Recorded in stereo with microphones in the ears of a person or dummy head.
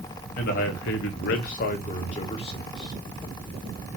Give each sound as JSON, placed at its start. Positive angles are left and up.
{"t": 0.4, "sound": "a man speaking", "side_deg": 45, "distance_m": 1.0}